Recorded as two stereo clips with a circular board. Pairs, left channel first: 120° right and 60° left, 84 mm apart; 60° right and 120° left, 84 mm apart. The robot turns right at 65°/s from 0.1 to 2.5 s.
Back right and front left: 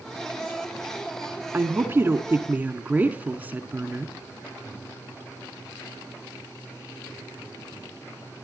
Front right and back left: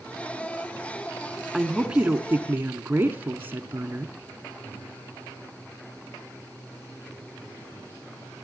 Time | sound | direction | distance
1.5 | a woman speaking | 35° left | 1.1 m